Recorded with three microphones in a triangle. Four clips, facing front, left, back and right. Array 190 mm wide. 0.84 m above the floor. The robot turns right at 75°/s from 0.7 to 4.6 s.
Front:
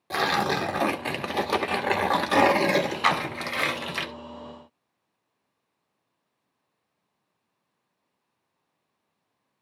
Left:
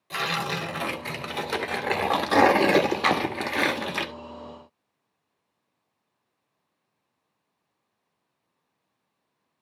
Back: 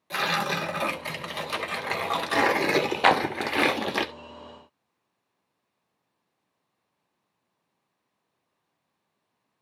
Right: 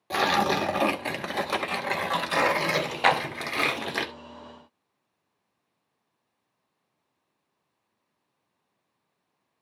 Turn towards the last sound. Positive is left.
turn(degrees=-35)